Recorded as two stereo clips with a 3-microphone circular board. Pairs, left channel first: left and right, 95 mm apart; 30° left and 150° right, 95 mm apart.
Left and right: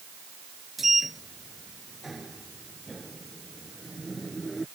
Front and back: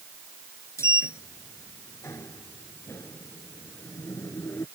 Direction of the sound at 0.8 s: 5° right.